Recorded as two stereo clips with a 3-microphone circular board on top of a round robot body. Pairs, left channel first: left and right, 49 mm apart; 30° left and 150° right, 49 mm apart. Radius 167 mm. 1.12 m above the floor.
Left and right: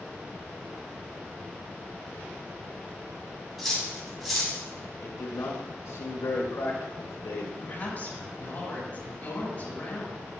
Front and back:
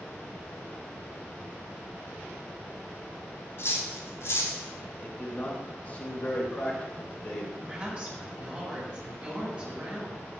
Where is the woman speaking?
140° left, 6 m.